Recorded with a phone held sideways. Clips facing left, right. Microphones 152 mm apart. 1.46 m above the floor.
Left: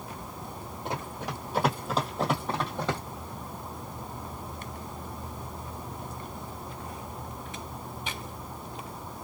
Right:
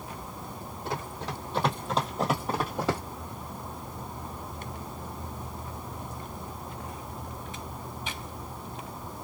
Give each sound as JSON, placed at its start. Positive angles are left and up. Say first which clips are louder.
{"t": 0.8, "sound": "running footsteps", "louder": "even", "side_deg": 20, "distance_m": 1.7}